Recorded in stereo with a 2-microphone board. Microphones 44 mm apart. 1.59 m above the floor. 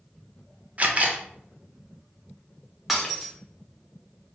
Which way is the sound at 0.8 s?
30° right (ahead or behind).